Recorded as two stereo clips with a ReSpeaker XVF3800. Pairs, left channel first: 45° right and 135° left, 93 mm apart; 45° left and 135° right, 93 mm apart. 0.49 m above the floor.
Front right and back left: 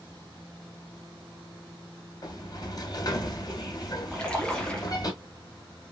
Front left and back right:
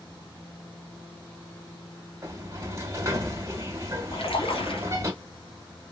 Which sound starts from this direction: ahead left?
A splash, at 4.1 s.